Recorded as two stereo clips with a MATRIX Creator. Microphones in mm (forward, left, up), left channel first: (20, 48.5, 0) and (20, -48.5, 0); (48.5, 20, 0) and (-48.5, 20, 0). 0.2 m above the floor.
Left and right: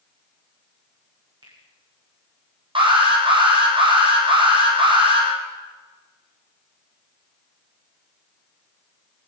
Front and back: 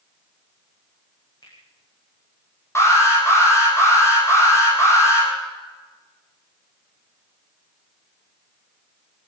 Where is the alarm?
60° right, 8 m.